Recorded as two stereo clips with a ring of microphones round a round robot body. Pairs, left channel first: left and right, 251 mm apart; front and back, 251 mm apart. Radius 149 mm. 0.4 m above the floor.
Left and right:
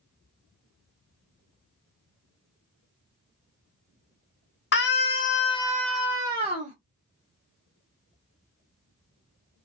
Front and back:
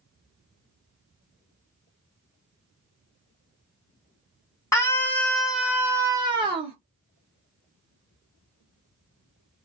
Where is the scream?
75° left, 1.4 m; by 6.8 s 125° right, 1.3 m.